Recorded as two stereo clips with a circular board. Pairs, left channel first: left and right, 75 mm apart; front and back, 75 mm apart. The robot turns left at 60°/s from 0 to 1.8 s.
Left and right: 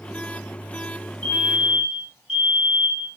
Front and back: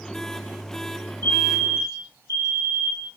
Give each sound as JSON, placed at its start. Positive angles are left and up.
{"t": 1.2, "sound": "a fire alarm", "azimuth_deg": 25, "distance_m": 3.0}